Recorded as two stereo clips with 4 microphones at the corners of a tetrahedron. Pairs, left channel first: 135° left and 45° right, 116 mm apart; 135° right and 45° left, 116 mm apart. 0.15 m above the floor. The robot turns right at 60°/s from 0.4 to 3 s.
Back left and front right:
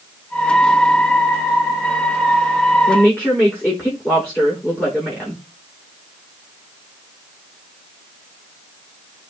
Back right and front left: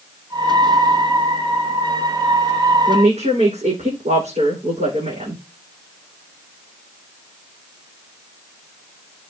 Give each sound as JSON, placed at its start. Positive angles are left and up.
{"t": 2.9, "sound": "a woman speaking", "azimuth_deg": 50, "distance_m": 8.5}